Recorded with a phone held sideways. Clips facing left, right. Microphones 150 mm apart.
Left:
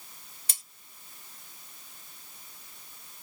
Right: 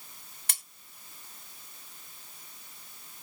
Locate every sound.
0.5 s cutlery clinking: 60° right (ahead or behind), 0.8 m